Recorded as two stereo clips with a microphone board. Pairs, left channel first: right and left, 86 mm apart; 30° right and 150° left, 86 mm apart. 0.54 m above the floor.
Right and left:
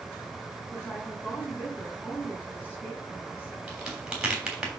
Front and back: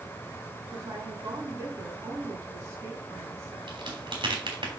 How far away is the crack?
About 3 m.